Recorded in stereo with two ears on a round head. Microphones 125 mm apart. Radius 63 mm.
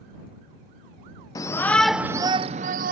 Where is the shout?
25° left (ahead or behind); by 2.9 s 65° right (ahead or behind).